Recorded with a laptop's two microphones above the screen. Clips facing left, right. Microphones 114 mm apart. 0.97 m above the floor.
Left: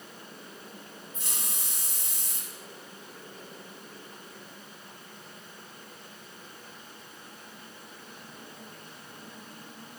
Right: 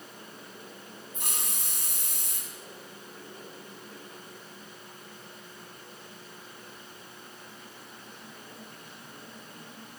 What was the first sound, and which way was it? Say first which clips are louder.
A hiss: right 3 dB; 65° right (ahead or behind).